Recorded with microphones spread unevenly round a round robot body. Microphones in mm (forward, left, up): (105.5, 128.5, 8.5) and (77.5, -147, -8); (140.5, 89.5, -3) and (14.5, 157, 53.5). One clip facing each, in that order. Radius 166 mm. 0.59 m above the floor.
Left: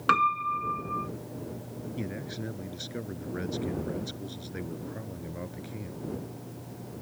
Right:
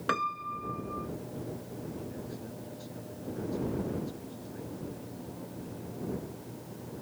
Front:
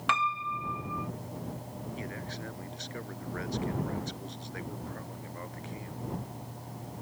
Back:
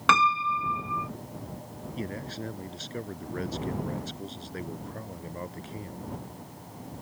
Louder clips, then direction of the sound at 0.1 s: Left 4 dB, back 7 dB; 160° left.